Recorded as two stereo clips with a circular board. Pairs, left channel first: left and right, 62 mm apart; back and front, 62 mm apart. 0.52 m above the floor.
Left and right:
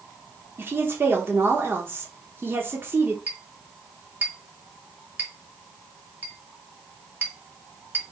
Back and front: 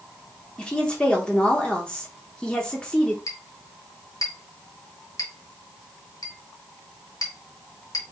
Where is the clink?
150° right, 1.2 m.